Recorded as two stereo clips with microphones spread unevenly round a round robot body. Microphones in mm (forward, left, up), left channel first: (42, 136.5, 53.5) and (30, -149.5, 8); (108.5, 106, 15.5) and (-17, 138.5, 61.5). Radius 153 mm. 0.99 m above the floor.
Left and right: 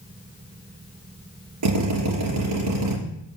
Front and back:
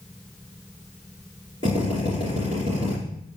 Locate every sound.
1.6 s a drill: 70° right, 3 m